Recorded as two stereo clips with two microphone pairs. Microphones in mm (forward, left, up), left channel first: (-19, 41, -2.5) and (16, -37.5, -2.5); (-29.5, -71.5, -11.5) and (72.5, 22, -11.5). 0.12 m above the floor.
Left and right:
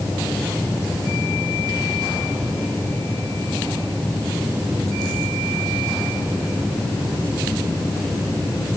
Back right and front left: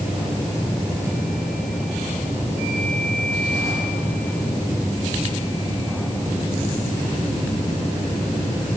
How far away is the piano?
No piano in this recording.